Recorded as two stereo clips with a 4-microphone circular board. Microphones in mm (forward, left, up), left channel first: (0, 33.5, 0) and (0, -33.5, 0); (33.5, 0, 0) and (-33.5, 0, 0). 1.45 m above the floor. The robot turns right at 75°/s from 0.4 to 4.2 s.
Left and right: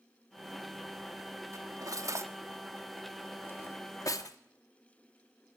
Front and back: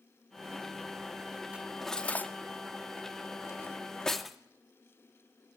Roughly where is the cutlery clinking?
Right.